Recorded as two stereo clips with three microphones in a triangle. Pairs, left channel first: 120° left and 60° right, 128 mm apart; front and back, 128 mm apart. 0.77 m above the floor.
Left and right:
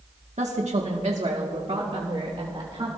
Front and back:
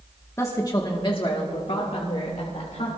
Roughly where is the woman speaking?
Ahead right.